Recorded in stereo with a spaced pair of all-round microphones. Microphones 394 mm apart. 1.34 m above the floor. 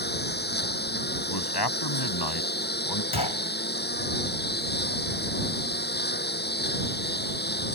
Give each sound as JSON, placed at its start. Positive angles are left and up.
{"t": 0.0, "sound": "a lawn mower", "side_deg": 25}
{"t": 1.3, "sound": "a man speaking", "side_deg": 75}
{"t": 3.1, "sound": "a gunshot", "side_deg": 70}